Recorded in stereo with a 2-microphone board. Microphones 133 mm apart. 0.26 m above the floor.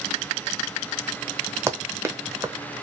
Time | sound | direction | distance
1.7 | running footsteps | 20° right (ahead or behind) | 0.7 m